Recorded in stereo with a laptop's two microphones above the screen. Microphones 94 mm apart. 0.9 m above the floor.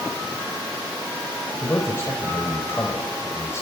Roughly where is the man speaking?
Left.